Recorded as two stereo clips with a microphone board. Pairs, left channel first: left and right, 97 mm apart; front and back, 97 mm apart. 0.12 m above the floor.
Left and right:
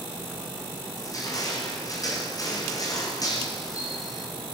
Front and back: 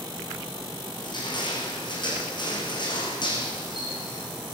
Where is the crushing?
35° left, 7 m.